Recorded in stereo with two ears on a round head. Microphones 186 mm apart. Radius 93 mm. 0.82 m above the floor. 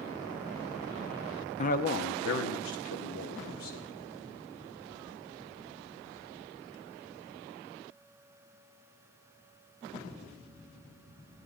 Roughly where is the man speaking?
Left.